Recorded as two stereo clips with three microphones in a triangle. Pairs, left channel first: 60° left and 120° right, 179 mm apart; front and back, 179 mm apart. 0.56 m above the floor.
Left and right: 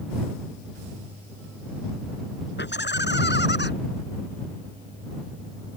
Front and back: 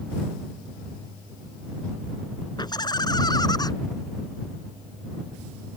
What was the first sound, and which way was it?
Laughter, 65° left.